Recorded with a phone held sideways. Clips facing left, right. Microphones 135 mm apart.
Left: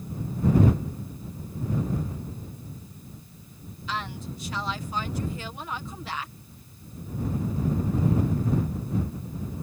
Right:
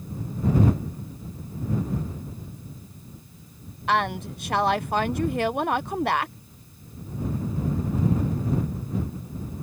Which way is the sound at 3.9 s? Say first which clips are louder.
Right 10 dB; 65° right (ahead or behind).